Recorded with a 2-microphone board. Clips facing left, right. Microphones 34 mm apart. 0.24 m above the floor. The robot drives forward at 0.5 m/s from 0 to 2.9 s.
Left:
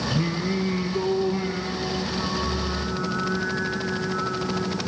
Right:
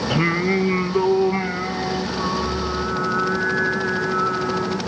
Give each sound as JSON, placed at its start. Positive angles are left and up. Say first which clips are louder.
{"t": 0.1, "sound": "singing", "louder": "right 9 dB", "side_deg": -55, "distance_m": 1.0}